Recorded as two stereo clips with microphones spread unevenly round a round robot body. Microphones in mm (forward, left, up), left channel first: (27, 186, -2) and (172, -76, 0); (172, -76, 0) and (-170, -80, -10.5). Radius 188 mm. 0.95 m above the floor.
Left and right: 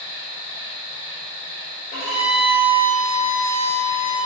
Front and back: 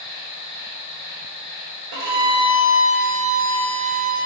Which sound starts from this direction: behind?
A violin, at 1.9 s.